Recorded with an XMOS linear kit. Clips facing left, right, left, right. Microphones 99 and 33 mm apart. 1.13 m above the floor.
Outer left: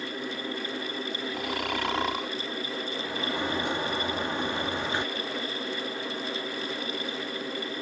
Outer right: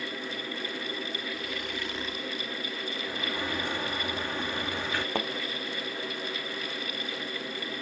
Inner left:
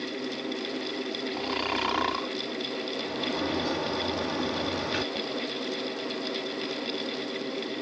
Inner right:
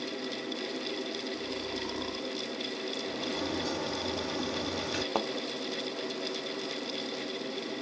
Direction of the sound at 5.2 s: 60° right (ahead or behind).